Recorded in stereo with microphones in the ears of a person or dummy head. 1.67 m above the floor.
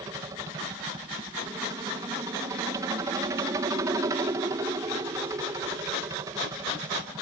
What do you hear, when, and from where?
0.0 s a helicopter: 20° right (ahead or behind)